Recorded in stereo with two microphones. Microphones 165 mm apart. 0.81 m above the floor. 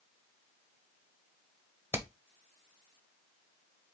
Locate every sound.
1.9 s hammering: 15° right (ahead or behind), 0.8 m